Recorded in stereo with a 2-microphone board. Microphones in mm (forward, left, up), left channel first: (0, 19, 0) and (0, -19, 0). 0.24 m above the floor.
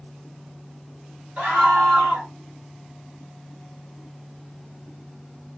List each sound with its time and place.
1.4 s a scream: 45° right (ahead or behind), 6 m